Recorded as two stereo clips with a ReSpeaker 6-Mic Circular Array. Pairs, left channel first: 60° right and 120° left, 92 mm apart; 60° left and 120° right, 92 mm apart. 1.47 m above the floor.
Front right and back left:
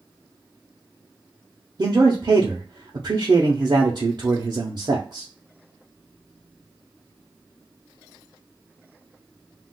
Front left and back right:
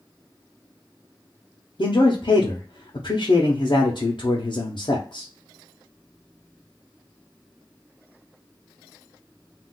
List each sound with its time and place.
1.8 s a man speaking: 85° left, 0.7 m